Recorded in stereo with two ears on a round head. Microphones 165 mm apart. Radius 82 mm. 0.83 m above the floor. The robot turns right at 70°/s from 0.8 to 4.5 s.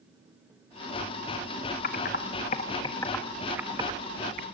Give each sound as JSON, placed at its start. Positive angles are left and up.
{"t": 1.8, "sound": "typing on a keyboard", "side_deg": 50, "distance_m": 1.2}